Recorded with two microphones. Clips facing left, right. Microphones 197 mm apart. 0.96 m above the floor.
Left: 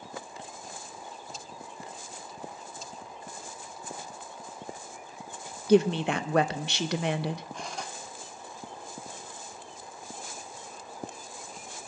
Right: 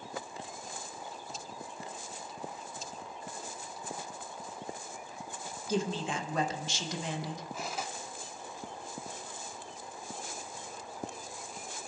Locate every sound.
5.7 s a woman speaking: 65° left (ahead or behind), 0.6 m
7.5 s cutlery clinking: 5° right (ahead or behind), 1.1 m